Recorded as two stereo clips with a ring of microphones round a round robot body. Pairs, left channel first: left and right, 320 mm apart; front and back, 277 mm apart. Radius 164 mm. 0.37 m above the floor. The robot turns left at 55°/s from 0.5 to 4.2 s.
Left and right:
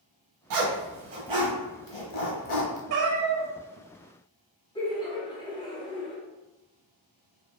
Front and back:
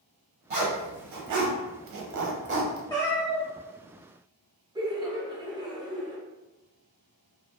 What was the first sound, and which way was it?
A zipper, 120° right.